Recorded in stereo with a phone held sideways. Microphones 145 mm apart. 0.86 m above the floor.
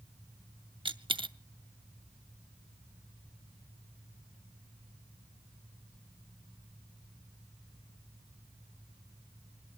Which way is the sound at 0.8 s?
35° right (ahead or behind).